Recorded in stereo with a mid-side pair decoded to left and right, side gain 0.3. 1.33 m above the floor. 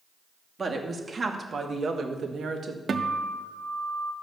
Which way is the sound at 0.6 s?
50° right.